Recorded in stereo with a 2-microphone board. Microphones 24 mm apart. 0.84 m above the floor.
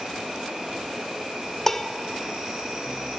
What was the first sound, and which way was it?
An insect, 35° right (ahead or behind).